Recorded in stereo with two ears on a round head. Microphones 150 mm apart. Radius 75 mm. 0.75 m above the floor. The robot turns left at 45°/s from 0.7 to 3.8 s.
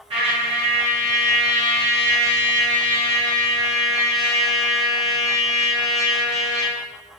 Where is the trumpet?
35° right, 0.7 m; by 6.8 s 175° right, 0.7 m.